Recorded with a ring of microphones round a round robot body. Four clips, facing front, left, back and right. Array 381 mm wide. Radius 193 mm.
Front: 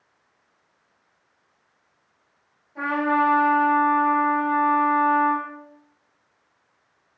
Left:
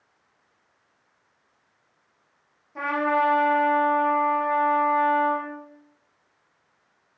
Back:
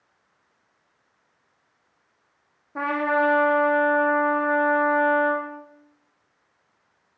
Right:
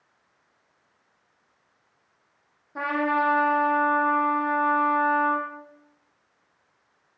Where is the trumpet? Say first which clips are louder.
Left 1 dB, front 1 dB; 165° right, 8.5 m.